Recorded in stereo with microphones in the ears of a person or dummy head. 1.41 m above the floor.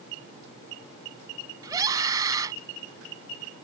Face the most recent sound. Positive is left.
turn(degrees=-15)  # may be behind; listen again after turning